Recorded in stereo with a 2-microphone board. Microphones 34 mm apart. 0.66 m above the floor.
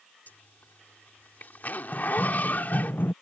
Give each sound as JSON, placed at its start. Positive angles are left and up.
{"t": 0.3, "sound": "a zipper", "side_deg": 55}
{"t": 1.9, "sound": "running footsteps", "side_deg": 35}